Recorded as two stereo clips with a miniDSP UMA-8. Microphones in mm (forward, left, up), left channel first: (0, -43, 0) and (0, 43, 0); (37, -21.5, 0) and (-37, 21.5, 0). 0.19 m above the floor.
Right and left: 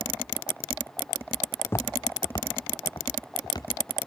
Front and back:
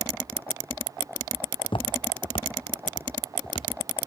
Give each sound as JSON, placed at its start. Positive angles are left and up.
{"t": 1.6, "sound": "footsteps", "azimuth_deg": -25, "distance_m": 0.5}